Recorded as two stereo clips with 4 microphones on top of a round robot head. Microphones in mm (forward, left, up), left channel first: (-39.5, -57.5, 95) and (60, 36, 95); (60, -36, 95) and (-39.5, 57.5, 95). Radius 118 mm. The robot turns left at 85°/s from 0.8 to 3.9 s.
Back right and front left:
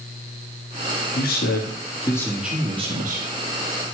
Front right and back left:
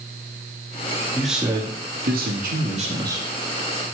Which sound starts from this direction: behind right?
A man speaking, at 1.1 s.